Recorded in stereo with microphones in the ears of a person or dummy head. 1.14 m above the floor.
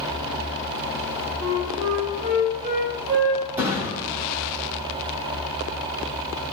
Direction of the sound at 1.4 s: 35° right (ahead or behind).